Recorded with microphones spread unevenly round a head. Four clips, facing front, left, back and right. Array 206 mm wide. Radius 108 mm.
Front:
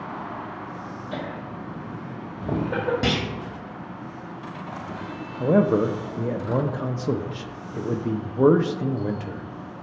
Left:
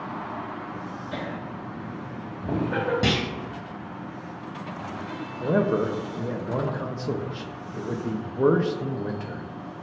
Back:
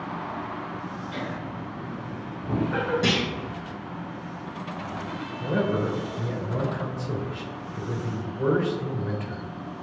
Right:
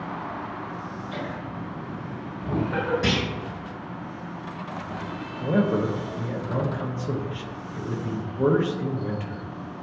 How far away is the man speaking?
About 0.6 m.